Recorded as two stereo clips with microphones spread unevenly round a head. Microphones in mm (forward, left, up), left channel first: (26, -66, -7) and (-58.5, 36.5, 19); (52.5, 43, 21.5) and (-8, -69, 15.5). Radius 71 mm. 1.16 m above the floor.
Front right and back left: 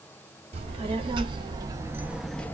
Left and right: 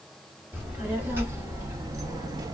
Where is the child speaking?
165° left, 1.1 m; by 2.5 s 125° right, 0.5 m.